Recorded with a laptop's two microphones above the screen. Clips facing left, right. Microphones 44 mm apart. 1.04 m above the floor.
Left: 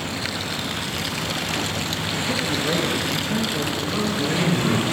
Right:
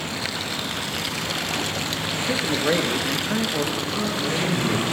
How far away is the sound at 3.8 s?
About 8.5 m.